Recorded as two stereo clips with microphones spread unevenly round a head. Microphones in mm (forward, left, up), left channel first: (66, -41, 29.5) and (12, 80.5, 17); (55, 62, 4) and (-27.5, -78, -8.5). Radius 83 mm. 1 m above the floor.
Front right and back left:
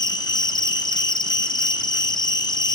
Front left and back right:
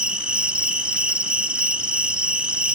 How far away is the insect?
About 1.0 m.